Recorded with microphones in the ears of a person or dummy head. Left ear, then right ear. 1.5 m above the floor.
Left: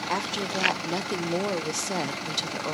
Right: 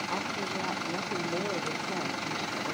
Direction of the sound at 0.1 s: 90° left.